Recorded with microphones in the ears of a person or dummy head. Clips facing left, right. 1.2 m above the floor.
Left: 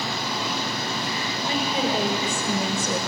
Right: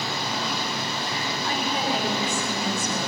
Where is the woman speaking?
20° left (ahead or behind), 5 m; by 3.0 s 35° left (ahead or behind), 4.5 m.